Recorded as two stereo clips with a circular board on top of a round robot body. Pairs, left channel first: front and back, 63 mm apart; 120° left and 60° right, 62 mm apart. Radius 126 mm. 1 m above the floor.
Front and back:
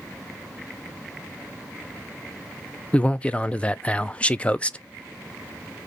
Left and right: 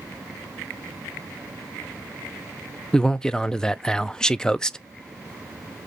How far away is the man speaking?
About 0.5 m.